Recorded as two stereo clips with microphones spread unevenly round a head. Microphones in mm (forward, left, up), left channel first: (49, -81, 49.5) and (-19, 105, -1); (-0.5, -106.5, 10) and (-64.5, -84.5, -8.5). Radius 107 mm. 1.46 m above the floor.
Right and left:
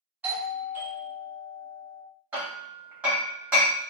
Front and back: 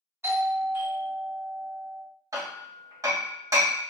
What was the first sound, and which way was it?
A doorbell, 175° right.